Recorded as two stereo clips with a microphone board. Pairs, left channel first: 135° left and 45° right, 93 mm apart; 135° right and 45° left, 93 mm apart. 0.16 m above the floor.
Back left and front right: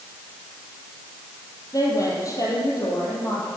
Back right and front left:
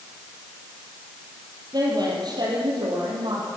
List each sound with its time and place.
1.7 s a woman speaking: 85° left, 5 m; by 3.5 s 80° left, 6 m